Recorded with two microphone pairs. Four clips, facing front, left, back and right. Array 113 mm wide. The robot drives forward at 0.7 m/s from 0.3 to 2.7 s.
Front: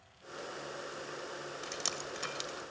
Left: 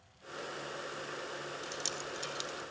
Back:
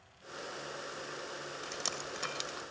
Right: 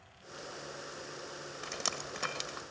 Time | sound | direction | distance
1.6 | dripping | 80° right | 1.9 m